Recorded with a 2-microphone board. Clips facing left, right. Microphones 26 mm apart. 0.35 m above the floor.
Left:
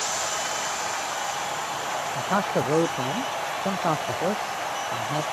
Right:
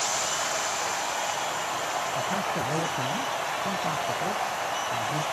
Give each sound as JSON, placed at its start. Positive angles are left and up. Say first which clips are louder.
{"t": 2.1, "sound": "a man speaking", "louder": "left 3 dB", "side_deg": 70}